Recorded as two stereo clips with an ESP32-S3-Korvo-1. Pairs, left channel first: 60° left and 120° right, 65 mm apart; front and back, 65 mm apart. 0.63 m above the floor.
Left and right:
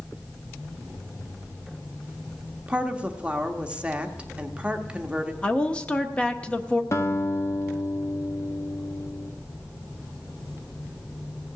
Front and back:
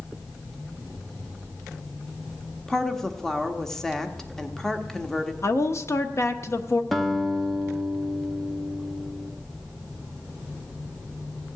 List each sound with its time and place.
2.7 s a woman speaking: 75° right, 0.9 m
5.4 s a woman speaking: 5° right, 0.9 m
6.9 s a guitar: 85° left, 1.1 m